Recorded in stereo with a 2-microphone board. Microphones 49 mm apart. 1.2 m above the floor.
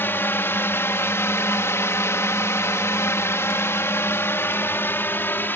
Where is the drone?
50° left (ahead or behind); by 5.6 s 45° left (ahead or behind).